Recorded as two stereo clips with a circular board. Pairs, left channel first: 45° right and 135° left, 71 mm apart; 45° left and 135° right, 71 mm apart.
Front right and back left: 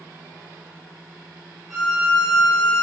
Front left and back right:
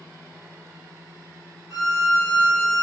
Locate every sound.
1.7 s a violin: 140° right, 1.5 m